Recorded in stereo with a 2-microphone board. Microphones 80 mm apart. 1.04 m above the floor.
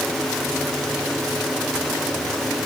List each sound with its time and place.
Only background noise.